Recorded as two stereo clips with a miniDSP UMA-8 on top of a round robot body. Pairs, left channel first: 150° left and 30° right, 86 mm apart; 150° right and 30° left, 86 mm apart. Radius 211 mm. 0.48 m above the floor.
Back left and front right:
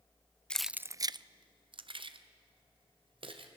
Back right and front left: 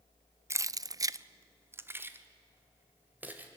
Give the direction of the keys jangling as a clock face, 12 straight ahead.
9 o'clock.